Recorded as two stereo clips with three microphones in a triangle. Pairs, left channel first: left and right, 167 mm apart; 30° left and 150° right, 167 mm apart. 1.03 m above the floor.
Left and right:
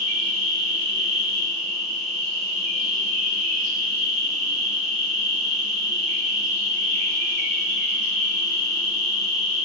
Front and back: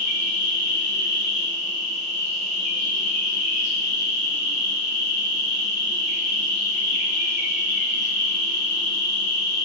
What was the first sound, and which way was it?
An insect, 150° left.